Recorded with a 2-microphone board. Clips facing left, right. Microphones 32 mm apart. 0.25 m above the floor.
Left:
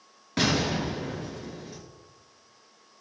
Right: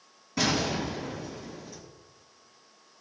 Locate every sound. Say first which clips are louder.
0.4 s an explosion: left 2 dB; 65° left (ahead or behind), 4 m